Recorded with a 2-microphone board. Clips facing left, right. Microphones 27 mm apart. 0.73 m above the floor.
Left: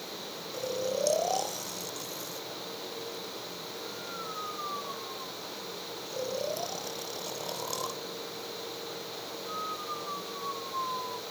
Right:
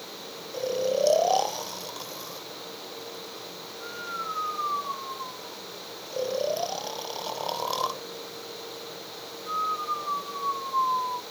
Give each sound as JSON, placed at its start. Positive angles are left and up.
{"t": 0.5, "sound": "snoring", "side_deg": -45}